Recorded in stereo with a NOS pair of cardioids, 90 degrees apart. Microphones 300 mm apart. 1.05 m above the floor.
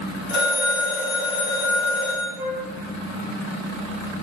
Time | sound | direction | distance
0.3 | a phone ringing | 65° left | 2.0 m
2.4 | a flute | 5° right | 0.7 m